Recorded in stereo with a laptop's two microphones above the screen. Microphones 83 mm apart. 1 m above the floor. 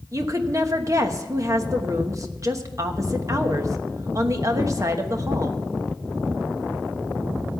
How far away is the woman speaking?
About 1.1 m.